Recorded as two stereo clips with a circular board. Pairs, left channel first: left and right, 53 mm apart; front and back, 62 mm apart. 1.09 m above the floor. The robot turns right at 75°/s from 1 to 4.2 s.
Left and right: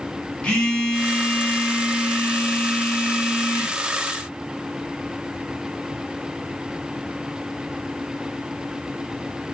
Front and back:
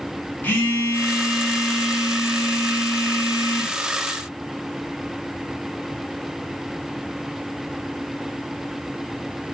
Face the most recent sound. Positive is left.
turn(degrees=-85)